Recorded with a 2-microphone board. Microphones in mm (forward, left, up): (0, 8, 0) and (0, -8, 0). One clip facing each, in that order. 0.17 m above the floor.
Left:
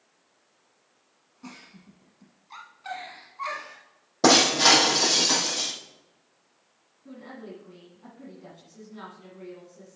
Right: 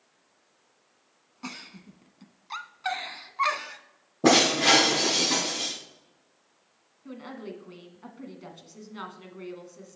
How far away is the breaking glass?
About 3 m.